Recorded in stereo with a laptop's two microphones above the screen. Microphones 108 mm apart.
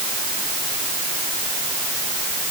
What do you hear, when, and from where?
Only background noise.